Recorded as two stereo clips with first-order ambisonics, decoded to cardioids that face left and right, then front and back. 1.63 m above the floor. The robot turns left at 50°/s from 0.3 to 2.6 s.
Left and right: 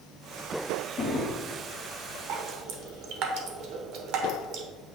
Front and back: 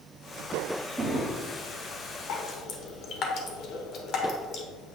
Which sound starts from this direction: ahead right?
Dripping, at 2.3 s.